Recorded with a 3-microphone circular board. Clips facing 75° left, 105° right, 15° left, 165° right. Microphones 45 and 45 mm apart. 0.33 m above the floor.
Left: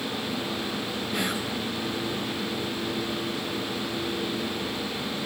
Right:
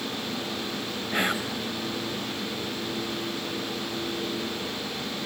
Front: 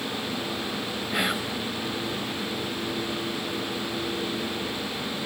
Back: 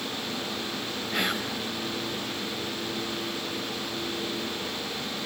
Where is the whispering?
60° right, 1.3 m.